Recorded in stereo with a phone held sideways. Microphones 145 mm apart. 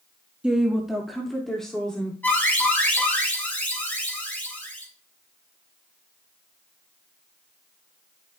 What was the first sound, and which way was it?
A woman speaking, 5° right (ahead or behind).